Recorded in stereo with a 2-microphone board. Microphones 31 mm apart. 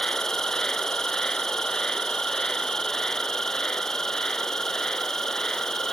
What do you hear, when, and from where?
0.0 s an insect: 15° left (ahead or behind)